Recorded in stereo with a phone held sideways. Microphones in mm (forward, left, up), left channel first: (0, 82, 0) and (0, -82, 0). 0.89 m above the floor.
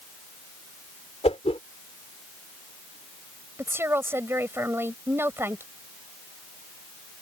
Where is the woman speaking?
15° right (ahead or behind).